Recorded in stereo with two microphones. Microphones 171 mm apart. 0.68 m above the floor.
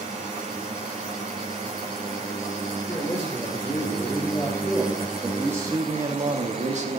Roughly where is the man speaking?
Left.